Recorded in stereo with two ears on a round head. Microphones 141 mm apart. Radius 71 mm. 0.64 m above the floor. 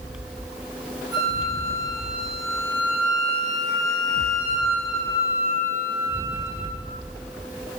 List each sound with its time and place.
1.1 s a flute: 20° right (ahead or behind), 2.5 m